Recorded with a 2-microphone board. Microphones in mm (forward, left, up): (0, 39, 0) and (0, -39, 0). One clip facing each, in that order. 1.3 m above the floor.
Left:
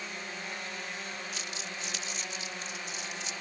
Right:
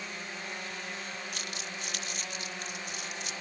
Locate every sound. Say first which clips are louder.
1.3 s crumpling: even; 60° right (ahead or behind)